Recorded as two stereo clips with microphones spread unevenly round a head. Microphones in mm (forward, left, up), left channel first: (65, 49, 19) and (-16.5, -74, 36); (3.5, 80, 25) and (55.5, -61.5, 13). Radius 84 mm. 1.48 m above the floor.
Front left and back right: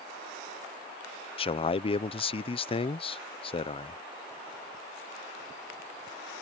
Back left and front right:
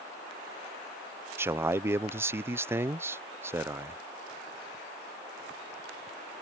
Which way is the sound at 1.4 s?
5° left.